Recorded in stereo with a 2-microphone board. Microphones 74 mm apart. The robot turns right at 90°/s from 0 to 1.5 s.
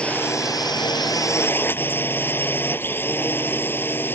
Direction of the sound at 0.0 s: 15° left.